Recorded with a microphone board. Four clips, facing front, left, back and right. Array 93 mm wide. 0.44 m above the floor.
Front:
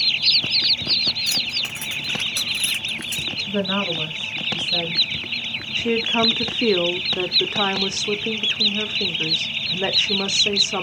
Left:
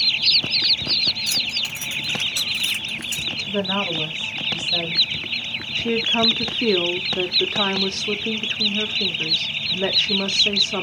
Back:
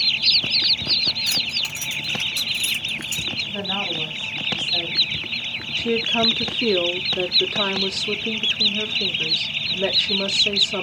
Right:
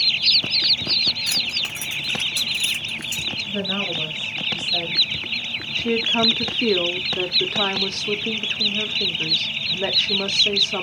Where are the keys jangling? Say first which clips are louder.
Even, even; 110° right, 0.8 m; by 3.3 s 30° left, 2.5 m.